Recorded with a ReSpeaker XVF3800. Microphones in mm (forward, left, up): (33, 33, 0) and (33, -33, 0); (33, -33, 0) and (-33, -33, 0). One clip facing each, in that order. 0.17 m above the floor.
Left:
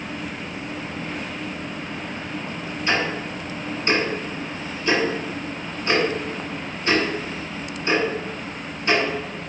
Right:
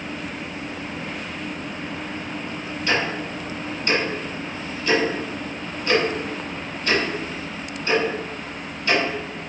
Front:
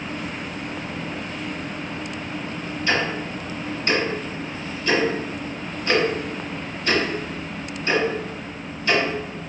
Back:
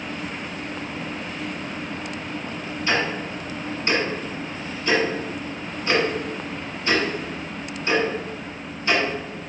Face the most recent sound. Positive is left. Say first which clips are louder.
# even, even
turn(degrees=135)